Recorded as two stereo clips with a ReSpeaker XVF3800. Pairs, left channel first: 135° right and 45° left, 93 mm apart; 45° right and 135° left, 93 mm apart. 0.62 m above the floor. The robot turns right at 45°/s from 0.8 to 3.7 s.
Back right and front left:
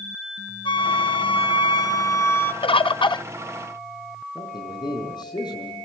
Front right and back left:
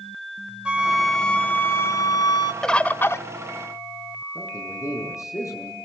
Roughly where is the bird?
Behind right.